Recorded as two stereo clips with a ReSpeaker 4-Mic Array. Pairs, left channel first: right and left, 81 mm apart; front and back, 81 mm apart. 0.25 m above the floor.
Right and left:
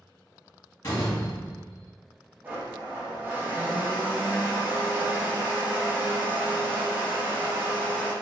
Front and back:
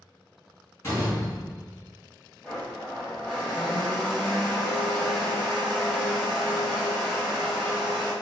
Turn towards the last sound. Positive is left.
turn(degrees=65)